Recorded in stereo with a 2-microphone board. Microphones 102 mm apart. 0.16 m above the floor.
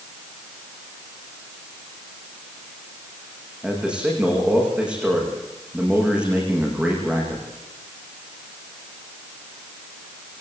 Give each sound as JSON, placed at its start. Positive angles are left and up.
{"t": 3.6, "sound": "a man speaking", "side_deg": -10, "distance_m": 10.0}